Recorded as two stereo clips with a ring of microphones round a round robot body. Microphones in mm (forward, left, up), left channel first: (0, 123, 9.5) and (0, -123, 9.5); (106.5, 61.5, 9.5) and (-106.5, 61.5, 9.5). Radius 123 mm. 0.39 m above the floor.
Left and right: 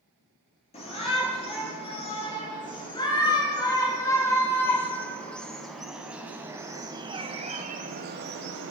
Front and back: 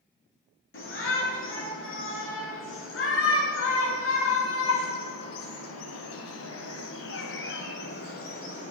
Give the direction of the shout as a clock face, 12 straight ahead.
11 o'clock.